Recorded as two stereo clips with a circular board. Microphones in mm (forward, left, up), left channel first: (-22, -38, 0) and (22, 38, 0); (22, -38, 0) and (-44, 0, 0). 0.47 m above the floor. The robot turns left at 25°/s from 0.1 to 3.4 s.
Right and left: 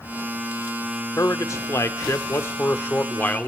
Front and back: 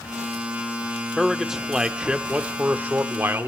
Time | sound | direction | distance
1.2 | a man speaking | 120° right | 0.9 m